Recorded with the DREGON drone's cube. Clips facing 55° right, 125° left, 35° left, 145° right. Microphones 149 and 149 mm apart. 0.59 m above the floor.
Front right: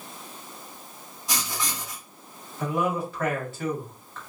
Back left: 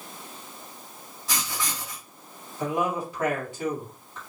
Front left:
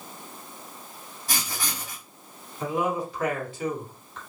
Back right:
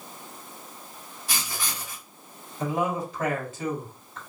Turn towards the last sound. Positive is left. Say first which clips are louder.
# even, even
turn(degrees=-165)